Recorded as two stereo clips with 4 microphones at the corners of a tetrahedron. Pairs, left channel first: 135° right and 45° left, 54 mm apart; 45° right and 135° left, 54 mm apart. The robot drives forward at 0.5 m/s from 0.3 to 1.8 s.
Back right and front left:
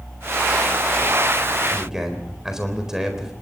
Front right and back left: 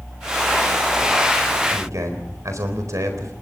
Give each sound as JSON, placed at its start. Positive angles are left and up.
{"t": 1.7, "sound": "a man speaking", "azimuth_deg": 125, "distance_m": 4.0}